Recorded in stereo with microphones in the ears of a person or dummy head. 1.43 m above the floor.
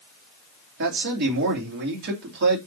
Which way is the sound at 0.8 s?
55° right (ahead or behind).